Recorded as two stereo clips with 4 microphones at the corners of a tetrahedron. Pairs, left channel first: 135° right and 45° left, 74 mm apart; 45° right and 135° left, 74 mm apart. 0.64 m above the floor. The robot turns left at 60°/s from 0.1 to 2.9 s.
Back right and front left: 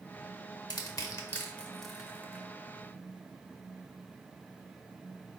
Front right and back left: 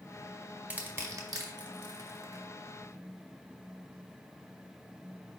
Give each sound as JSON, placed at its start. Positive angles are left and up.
{"t": 0.7, "sound": "crushing", "azimuth_deg": -155, "distance_m": 0.8}